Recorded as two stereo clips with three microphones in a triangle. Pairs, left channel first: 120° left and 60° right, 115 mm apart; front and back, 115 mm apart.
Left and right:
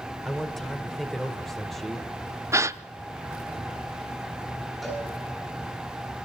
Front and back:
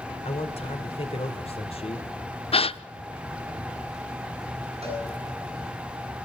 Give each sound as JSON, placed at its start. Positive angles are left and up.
{"t": 0.2, "sound": "a man speaking", "azimuth_deg": 30, "distance_m": 2.0}
{"t": 2.5, "sound": "a gasp", "azimuth_deg": 0, "distance_m": 0.5}
{"t": 4.8, "sound": "a cowbell", "azimuth_deg": -150, "distance_m": 9.5}